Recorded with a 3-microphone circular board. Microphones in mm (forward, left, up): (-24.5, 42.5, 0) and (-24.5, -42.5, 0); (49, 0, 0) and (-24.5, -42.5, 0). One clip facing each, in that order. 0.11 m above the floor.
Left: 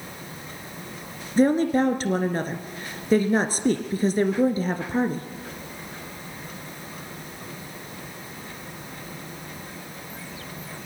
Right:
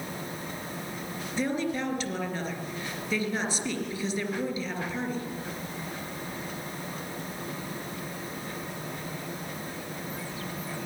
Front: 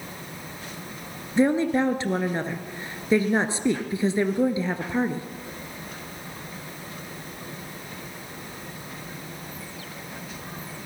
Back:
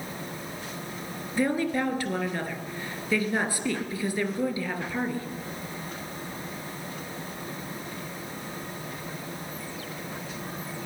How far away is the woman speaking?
About 2 m.